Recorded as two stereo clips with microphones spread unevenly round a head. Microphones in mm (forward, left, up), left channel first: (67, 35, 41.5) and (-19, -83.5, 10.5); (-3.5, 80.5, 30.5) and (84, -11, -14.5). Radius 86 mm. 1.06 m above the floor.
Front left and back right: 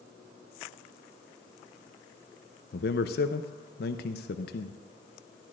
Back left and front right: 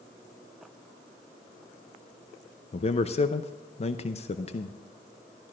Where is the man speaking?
85° left, 0.6 m.